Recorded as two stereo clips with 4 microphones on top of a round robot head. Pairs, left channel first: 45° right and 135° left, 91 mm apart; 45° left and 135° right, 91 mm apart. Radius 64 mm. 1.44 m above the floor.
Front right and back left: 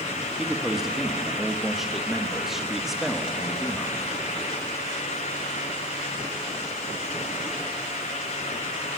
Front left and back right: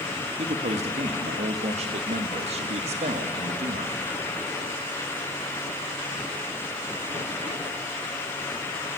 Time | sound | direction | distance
0.4 | a man speaking | 135° right | 2 m